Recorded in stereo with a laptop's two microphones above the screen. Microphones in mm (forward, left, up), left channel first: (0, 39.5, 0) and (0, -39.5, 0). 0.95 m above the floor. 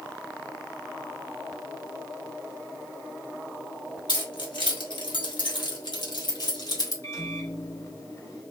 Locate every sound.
4.1 s keys jangling: 70° left (ahead or behind), 1.5 m; by 6.9 s 55° left (ahead or behind), 2.0 m
7.0 s a microwave: 45° left (ahead or behind), 1.5 m